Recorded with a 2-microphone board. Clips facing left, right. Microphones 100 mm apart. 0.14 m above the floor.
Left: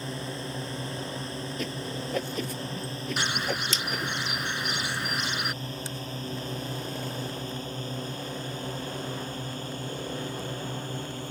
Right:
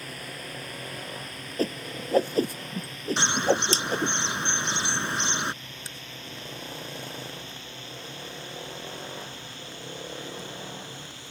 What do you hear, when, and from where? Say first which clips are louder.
0.0 s a drone: left 5 dB; 30° left (ahead or behind); by 11.3 s 50° left (ahead or behind)
1.6 s a whoosh: right 8 dB; 40° right (ahead or behind)
3.2 s a bird: right 7 dB; 30° right (ahead or behind)